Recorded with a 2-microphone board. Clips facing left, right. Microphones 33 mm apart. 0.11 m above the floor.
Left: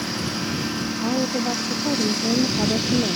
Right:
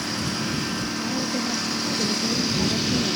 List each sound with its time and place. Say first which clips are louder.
0.0 s a lawn mower: left 1 dB; 5° left (ahead or behind); by 3.2 s centre (ahead or behind)
1.0 s a woman speaking: left 6 dB; 50° left (ahead or behind)